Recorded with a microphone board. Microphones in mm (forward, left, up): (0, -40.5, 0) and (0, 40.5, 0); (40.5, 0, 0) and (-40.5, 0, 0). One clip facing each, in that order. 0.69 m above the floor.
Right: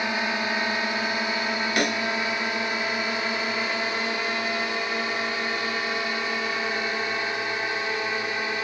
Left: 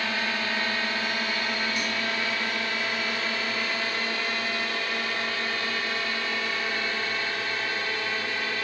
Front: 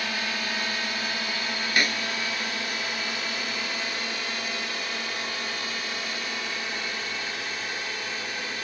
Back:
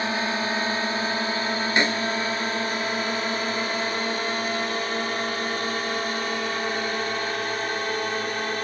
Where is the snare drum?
115° right.